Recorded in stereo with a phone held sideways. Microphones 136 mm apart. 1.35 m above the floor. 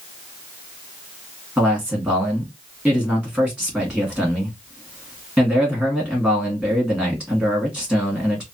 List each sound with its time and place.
1.6 s a man speaking: centre (ahead or behind), 2 m